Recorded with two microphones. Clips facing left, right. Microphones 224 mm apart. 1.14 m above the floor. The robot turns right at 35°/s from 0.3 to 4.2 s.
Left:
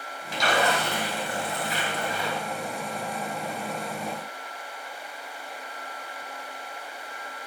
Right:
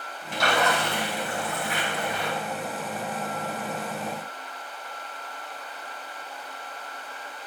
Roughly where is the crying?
I don't hear crying.